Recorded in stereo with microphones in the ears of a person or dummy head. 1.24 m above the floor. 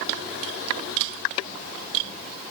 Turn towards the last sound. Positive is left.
No sound to turn to.